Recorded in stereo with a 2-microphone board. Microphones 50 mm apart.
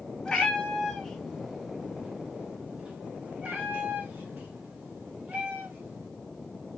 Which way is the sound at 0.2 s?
20° left (ahead or behind).